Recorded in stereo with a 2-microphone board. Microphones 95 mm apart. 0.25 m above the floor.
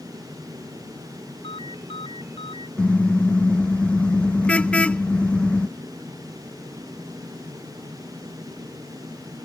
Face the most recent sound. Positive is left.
turn(degrees=15)  # may be behind; listen again after turning